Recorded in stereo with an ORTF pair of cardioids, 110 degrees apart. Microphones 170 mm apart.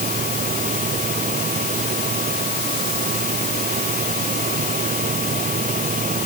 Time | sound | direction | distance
0.0 | a machine running | 50° right | ?